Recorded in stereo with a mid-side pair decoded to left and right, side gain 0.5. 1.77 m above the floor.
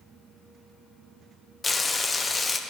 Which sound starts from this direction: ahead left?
Frying, at 1.6 s.